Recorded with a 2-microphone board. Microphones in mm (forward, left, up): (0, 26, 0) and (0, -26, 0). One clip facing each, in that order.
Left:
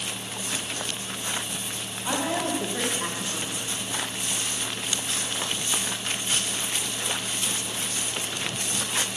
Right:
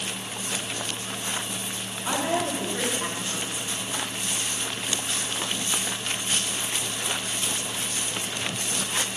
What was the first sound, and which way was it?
A woman speaking, 5° right (ahead or behind).